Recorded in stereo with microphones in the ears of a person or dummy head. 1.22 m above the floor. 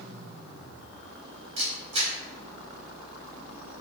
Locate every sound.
1.6 s a camera shutter: 40° right (ahead or behind), 3 m